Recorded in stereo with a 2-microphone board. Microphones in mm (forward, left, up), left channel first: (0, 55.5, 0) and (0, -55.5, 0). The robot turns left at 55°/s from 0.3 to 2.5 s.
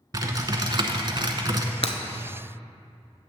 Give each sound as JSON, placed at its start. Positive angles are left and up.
{"t": 0.1, "sound": "typing on a keyboard", "azimuth_deg": -50, "distance_m": 0.7}
{"t": 1.8, "sound": "breaking glass", "side_deg": 60, "distance_m": 0.7}